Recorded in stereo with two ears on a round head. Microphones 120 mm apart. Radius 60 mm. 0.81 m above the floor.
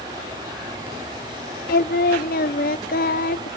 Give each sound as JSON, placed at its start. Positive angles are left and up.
{"t": 1.7, "sound": "singing", "side_deg": 70, "distance_m": 0.7}